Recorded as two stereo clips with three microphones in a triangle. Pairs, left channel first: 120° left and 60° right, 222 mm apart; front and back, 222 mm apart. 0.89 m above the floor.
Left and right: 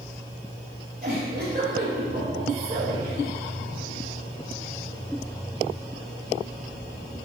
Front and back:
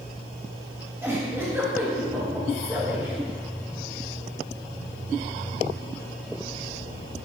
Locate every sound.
1.0 s a giggle: 100° right, 3 m